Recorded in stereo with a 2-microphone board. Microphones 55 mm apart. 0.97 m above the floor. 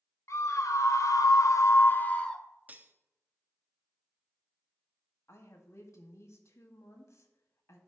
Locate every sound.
0.3 s a scream: 60° left (ahead or behind), 1.4 m; by 2.4 s 10° left (ahead or behind), 0.8 m
2.7 s cutlery clinking: 30° right (ahead or behind), 0.7 m
5.3 s a woman speaking: 60° left (ahead or behind), 1.9 m